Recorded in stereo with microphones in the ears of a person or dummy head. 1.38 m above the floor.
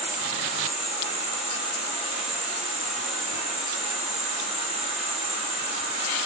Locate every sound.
0.0 s an insect: 35° right (ahead or behind), 4 m